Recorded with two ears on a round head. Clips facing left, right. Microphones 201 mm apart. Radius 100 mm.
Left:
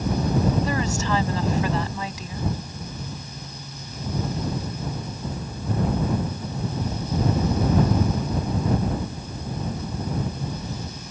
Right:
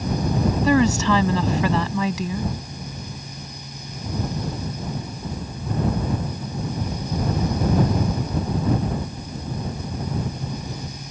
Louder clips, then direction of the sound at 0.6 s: Right 8 dB; 60° right (ahead or behind).